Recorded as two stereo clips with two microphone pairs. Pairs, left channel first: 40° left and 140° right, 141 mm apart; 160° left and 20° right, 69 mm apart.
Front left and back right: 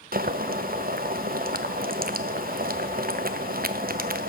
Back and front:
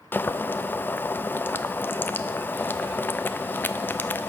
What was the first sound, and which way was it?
Boiling, 140° right.